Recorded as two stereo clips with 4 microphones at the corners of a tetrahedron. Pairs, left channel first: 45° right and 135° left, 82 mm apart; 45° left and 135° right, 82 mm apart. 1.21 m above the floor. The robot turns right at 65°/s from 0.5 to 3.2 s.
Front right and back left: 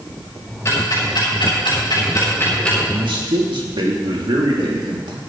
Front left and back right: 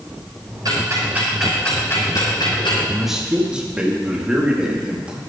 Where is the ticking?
95° right, 5.5 m; by 2.8 s 45° left, 5.5 m.